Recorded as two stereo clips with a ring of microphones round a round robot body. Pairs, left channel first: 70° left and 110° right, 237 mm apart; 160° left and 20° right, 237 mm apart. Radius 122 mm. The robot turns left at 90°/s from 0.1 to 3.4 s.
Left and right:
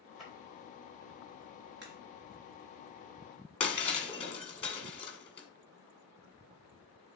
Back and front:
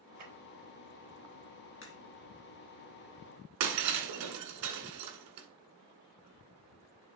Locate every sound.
0.2 s a clap: 20° right, 4 m; by 0.3 s 35° right, 4 m
1.8 s a crack: 160° right, 1.9 m; by 2.0 s 175° right, 1.9 m
3.6 s breaking glass: straight ahead, 1.9 m